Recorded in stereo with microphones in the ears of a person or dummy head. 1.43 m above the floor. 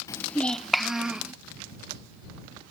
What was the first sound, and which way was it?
A child speaking, 15° left (ahead or behind).